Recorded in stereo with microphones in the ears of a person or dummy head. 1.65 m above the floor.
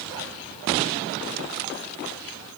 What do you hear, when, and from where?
Only background noise.